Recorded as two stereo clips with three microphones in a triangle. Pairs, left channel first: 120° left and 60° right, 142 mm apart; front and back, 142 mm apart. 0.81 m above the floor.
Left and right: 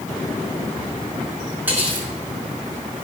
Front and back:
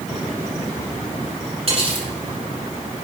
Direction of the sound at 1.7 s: 135° right.